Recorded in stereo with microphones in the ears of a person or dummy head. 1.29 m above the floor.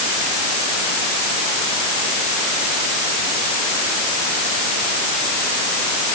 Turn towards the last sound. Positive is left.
No sound to turn to.